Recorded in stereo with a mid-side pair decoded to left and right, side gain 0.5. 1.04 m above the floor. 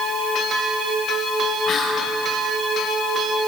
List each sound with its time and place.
1.7 s whispering: 50° left, 9 m